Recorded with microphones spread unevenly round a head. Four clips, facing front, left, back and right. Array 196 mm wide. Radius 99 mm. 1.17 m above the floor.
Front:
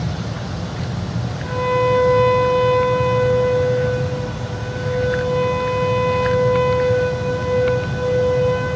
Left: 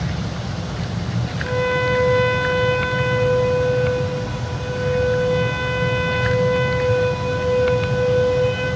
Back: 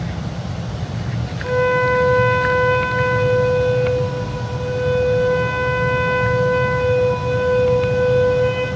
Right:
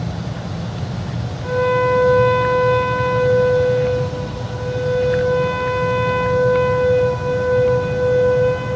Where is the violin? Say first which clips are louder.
Right 4 dB, back 1 dB; 145° right, 8.5 m.